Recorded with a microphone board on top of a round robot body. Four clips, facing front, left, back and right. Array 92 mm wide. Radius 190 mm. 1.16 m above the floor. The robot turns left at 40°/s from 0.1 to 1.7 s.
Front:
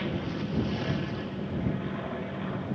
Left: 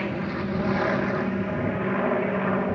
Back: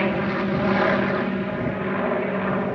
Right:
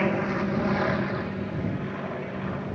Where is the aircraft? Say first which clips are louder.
Right 3 dB, back 10 dB; 155° right; by 2.8 s 145° left.